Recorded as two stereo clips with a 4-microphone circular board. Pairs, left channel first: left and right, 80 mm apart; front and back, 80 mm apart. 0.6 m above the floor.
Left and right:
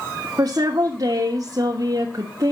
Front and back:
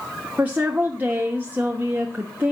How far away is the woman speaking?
About 1.1 m.